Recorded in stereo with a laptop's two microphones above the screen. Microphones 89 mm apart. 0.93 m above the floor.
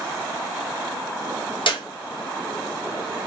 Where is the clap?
70° left (ahead or behind), 1.3 m.